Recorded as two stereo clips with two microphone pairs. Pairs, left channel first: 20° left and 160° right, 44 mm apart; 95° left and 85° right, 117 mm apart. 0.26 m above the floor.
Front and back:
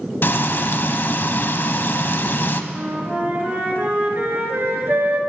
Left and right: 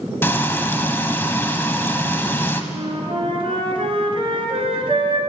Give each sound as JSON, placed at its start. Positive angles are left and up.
{"t": 0.2, "sound": "frying", "azimuth_deg": 30, "distance_m": 0.7}
{"t": 2.7, "sound": "a flute", "azimuth_deg": -120, "distance_m": 1.7}